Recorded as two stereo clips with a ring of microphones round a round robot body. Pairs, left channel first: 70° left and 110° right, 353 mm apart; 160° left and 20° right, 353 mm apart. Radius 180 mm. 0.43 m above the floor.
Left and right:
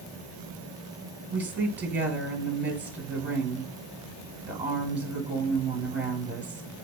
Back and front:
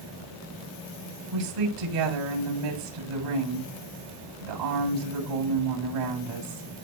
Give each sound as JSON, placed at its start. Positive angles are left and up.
{"t": 1.3, "sound": "a woman speaking", "azimuth_deg": -25, "distance_m": 8.5}